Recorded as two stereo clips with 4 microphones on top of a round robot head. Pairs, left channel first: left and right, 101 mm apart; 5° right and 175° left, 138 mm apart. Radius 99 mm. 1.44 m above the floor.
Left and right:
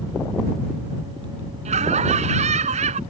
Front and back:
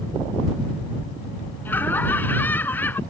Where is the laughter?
80° right.